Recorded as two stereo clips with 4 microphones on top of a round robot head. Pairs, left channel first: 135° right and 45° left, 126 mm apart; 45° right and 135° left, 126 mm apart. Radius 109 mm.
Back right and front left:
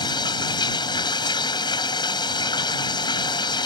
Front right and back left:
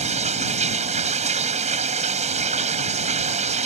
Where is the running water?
170° left.